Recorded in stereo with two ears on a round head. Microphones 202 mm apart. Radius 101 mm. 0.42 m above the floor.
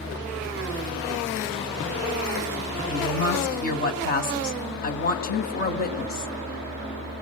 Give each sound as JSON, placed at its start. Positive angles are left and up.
{"t": 2.9, "sound": "a woman speaking", "side_deg": 40, "distance_m": 3.0}